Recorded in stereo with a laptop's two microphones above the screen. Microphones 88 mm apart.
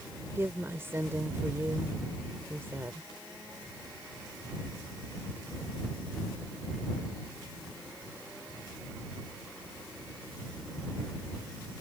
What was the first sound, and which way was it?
A woman speaking, 25° right (ahead or behind).